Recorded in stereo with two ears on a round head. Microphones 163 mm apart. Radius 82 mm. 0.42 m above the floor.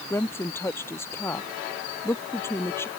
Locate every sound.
0.1 s a woman speaking: 15° left (ahead or behind)